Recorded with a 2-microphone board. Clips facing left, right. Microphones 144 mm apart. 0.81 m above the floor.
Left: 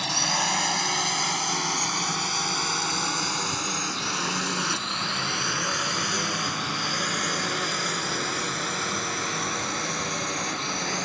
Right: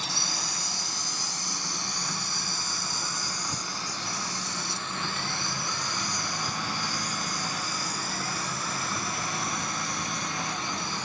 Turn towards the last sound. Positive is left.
turn(degrees=75)  # may be behind; listen again after turning